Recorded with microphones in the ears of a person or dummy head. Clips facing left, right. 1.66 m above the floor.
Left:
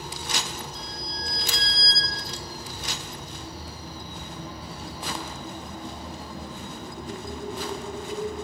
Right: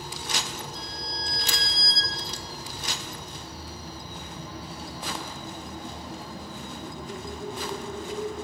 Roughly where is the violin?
Left.